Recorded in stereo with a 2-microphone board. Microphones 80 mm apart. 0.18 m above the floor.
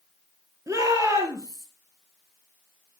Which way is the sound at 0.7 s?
40° right (ahead or behind).